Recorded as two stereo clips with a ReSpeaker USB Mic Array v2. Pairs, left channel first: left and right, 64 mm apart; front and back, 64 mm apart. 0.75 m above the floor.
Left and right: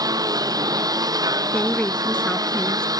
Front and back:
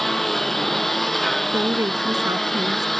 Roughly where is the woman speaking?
Behind.